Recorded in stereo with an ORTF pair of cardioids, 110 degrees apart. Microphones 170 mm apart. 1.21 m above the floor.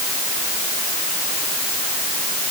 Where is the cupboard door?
I don't hear a cupboard door.